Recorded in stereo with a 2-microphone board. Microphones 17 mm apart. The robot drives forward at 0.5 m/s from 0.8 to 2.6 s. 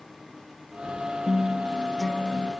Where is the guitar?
35° left (ahead or behind), 2 m; by 2.5 s 45° left (ahead or behind), 1.8 m.